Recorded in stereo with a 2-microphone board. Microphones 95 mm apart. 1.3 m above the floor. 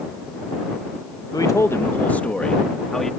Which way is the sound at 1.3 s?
40° left (ahead or behind).